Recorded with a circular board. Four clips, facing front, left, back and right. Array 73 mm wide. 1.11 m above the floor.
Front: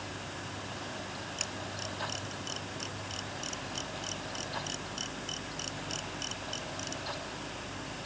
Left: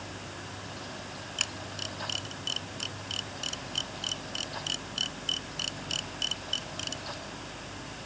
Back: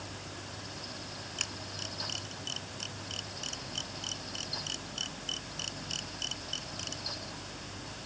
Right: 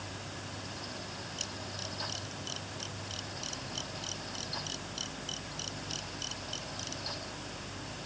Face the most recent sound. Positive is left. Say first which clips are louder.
# left 3 dB, front 3 dB
turn(degrees=100)